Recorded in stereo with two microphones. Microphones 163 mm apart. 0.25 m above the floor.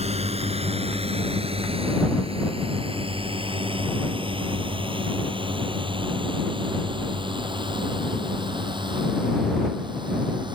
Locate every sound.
0.0 s a drone: 40° right (ahead or behind); by 10.6 s 30° right (ahead or behind)